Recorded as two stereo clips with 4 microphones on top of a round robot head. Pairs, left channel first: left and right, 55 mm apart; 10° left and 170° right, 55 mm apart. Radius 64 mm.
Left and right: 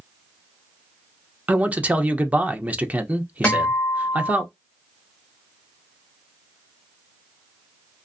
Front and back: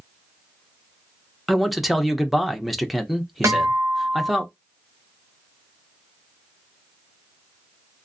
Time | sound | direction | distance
1.5 | a man speaking | 85° right | 0.6 m
3.4 | a guitar | 165° left | 1.4 m